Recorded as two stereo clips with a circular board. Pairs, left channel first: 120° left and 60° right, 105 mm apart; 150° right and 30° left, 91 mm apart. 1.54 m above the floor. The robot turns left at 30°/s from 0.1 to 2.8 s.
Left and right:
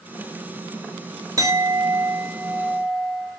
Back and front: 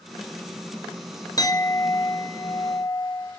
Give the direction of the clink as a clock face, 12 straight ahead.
4 o'clock.